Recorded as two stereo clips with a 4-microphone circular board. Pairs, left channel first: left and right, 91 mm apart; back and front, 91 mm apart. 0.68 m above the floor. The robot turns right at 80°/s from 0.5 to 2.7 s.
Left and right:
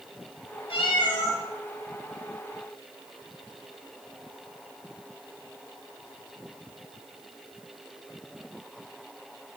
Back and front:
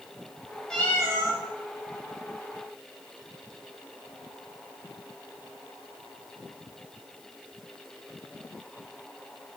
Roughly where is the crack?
No crack in this recording.